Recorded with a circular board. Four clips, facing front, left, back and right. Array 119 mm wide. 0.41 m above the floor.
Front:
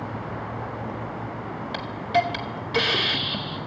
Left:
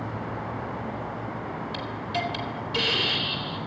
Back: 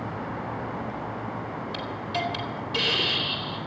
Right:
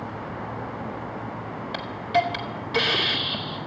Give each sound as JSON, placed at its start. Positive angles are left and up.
{"t": 1.7, "sound": "a hiss", "azimuth_deg": -45, "distance_m": 1.6}